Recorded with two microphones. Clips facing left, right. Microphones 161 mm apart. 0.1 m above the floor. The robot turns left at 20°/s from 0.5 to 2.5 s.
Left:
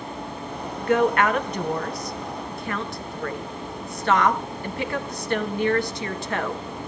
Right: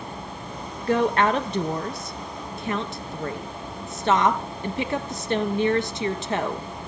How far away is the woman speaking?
About 1.2 m.